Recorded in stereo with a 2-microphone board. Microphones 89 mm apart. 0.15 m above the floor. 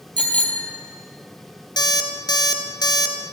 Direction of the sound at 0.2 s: 15° left (ahead or behind).